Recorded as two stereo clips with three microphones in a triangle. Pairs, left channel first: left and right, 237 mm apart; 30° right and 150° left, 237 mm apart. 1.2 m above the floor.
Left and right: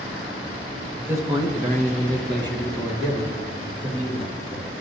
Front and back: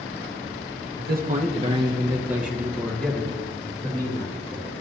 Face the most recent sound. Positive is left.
turn(degrees=-105)